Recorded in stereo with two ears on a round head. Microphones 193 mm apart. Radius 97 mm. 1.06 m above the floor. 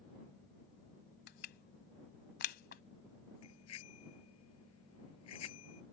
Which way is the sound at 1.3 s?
50° left (ahead or behind).